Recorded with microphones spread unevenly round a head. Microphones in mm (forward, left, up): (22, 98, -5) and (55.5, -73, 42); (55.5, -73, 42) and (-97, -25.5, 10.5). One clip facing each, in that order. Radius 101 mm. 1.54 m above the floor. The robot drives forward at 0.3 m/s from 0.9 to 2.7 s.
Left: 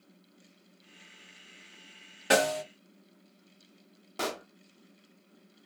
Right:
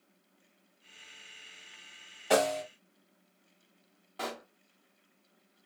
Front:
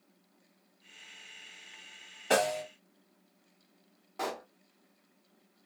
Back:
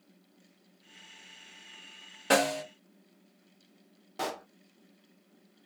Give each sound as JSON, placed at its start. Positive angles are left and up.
{"t": 2.3, "sound": "a snare drum", "azimuth_deg": 125, "distance_m": 1.6}
{"t": 4.2, "sound": "a pop", "azimuth_deg": 105, "distance_m": 0.6}